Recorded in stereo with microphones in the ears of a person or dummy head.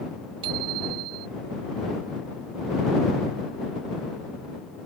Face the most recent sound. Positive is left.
turn(degrees=-25)  # may be behind; listen again after turning